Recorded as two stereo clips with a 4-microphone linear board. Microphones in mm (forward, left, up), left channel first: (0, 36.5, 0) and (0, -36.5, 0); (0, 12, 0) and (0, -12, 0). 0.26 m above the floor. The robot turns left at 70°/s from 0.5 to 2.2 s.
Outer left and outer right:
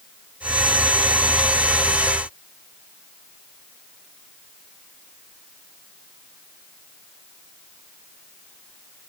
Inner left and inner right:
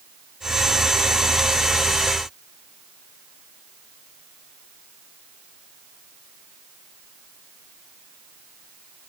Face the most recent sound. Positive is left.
No sound to turn to.